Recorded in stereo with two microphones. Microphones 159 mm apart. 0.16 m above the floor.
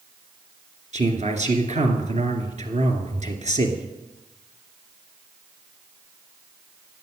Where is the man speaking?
45° right (ahead or behind), 2 m.